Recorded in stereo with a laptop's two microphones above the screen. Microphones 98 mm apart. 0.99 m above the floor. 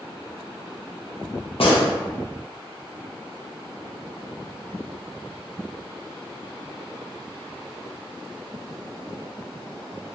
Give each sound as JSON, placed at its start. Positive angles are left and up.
{"t": 1.6, "sound": "a gunshot", "side_deg": 70, "distance_m": 1.1}